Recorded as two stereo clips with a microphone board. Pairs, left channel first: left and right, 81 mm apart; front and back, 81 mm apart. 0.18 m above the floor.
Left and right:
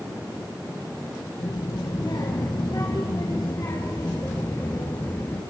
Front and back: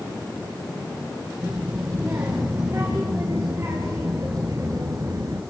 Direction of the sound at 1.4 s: 120° left.